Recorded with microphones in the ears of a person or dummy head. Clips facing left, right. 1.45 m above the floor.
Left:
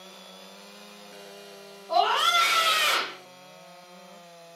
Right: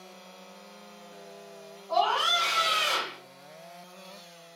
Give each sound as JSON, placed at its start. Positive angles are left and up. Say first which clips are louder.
{"t": 1.9, "sound": "a scream", "louder": "left 2 dB", "side_deg": 40, "distance_m": 0.9}